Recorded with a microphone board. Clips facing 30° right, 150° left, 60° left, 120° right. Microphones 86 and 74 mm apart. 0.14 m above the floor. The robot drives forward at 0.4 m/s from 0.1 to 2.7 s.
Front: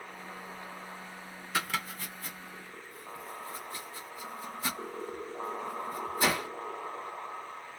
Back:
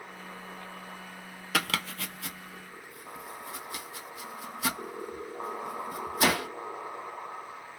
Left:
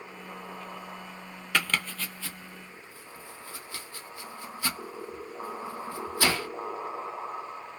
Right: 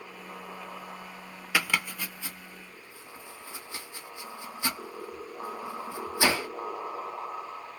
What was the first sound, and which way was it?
Chopping, 155° left.